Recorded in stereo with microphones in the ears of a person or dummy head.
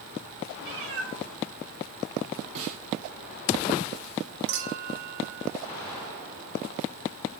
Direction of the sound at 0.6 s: 60° right (ahead or behind).